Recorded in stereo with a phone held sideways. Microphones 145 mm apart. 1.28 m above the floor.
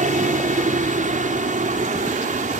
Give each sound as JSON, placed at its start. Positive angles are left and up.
{"t": 0.0, "sound": "a helicopter", "side_deg": -60}